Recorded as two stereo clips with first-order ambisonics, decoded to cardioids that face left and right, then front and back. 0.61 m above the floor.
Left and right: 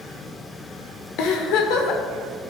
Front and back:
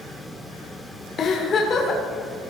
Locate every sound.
1.2 s a giggle: 65° left, 1.8 m